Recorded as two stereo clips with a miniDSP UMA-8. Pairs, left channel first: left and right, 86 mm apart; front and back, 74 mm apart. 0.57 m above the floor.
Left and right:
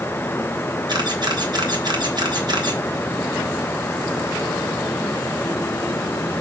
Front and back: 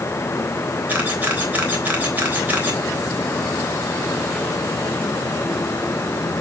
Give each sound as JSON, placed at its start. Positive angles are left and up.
{"t": 0.9, "sound": "a camera shutter", "azimuth_deg": -115, "distance_m": 3.0}